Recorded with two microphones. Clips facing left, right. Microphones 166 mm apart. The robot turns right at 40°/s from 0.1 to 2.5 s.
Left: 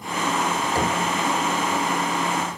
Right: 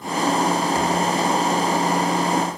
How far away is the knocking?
About 3.5 m.